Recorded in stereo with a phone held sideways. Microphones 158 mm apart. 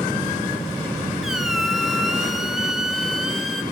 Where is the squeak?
Centre (ahead or behind), 0.5 m.